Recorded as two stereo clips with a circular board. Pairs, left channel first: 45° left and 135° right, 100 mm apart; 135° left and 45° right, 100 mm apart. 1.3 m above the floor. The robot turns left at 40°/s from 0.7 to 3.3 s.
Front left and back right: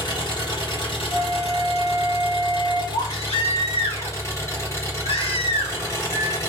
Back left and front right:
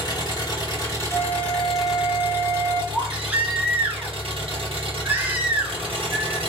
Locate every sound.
0.0 s an engine running: 85° left, 1.5 m; by 6.5 s 20° right, 1.5 m
1.1 s a flute: 100° left, 1.6 m; by 2.8 s 30° left, 1.6 m
2.9 s a baby crying: 40° left, 0.8 m; by 6.5 s 25° left, 0.8 m